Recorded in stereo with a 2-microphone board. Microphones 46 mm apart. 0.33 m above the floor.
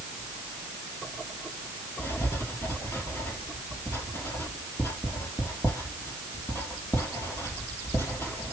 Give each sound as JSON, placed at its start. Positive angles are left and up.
{"t": 2.0, "sound": "writing", "side_deg": 85, "distance_m": 2.5}